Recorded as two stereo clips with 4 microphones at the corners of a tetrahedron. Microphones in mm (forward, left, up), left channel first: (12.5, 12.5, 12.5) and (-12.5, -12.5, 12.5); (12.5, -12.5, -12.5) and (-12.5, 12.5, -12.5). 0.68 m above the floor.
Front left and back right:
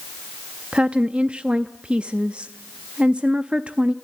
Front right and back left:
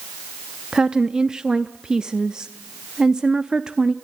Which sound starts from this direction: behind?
A woman speaking, at 0.7 s.